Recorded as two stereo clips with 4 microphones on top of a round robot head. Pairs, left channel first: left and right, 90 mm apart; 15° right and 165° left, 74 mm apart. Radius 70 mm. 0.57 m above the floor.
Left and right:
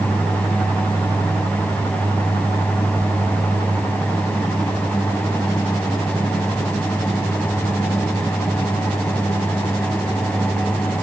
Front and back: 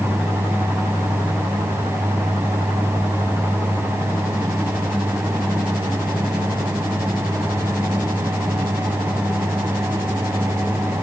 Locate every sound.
Only background noise.